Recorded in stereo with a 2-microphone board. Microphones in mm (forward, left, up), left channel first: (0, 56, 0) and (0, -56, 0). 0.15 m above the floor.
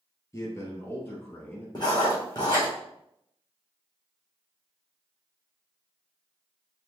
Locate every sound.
0.3 s a man speaking: 30° left (ahead or behind), 2.5 m; by 1.6 s 15° left (ahead or behind), 3 m
1.8 s writing: 45° left (ahead or behind), 4 m